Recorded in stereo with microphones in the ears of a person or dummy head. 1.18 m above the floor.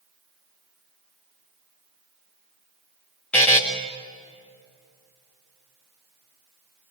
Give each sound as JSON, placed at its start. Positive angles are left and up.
{"t": 3.3, "sound": "a buzzer", "side_deg": 10, "distance_m": 1.8}